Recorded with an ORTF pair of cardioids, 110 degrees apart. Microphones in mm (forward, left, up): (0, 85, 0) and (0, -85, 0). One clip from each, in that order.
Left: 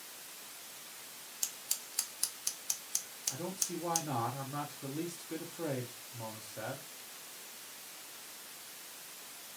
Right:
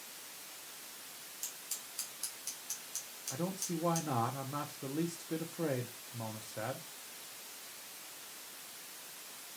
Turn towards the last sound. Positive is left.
turn(degrees=-20)